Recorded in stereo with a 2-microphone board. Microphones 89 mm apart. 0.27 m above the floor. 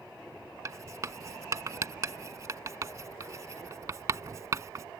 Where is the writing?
40° right (ahead or behind).